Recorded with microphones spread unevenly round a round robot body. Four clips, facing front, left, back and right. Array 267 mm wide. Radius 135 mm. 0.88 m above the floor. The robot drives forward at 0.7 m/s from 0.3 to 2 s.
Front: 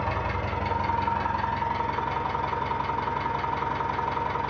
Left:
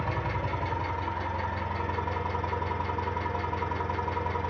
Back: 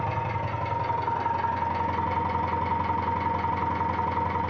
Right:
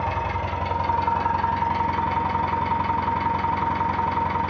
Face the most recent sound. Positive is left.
turn(degrees=-100)